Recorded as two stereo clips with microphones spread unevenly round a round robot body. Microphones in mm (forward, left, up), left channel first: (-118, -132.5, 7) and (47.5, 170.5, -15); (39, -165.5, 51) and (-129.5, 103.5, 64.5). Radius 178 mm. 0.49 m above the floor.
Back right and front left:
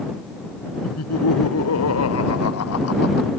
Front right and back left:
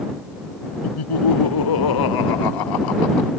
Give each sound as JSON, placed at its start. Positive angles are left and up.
{"t": 0.8, "sound": "laughter", "azimuth_deg": -65}